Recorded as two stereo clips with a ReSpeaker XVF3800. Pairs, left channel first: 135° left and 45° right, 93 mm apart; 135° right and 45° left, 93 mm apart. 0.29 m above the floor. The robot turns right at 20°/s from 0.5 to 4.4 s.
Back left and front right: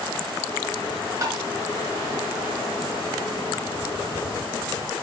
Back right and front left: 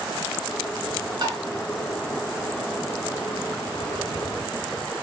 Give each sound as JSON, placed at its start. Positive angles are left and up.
{"t": 1.2, "sound": "tapping", "azimuth_deg": 5, "distance_m": 3.0}